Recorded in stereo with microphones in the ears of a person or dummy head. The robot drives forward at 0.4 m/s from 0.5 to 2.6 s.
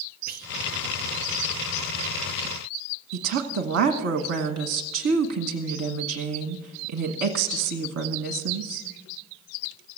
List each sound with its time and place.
0.3 s whispering: 40° right (ahead or behind), 0.9 m
3.1 s a woman speaking: 65° right (ahead or behind), 1.1 m